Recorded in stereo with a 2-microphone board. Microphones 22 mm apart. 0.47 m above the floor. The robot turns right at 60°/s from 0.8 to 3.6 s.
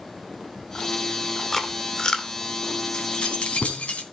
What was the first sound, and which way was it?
Chewing, 20° left (ahead or behind).